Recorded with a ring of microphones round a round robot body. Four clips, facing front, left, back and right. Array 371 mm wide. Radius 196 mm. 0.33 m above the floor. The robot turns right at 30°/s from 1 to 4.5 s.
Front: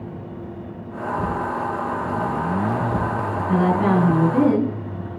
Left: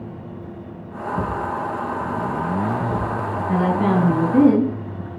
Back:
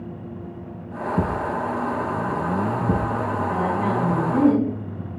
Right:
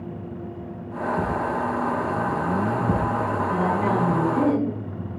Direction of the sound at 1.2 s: 160° left.